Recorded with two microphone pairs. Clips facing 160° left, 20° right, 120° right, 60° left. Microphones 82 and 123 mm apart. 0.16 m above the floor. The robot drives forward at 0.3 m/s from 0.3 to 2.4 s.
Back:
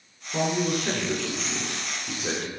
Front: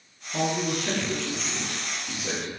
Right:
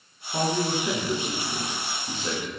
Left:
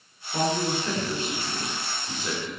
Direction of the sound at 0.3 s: 170° left.